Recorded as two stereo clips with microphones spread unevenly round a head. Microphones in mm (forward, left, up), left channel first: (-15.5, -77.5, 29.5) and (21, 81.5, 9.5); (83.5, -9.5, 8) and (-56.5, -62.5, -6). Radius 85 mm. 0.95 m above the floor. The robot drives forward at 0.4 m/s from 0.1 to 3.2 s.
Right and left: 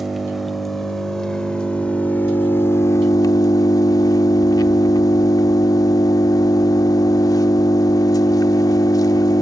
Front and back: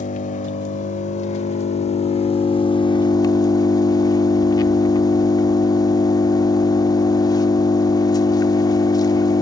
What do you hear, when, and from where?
0.0 s an engine running: 15° right, 1.9 m; by 9.4 s 40° right, 0.8 m